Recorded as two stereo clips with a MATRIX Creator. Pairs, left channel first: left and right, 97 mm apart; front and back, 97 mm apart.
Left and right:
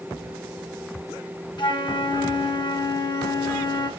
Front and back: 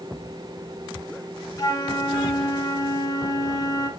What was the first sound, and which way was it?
A flute, 55° left.